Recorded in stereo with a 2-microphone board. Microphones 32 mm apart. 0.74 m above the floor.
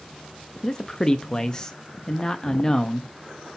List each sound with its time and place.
0.6 s a man speaking: 20° left (ahead or behind), 0.6 m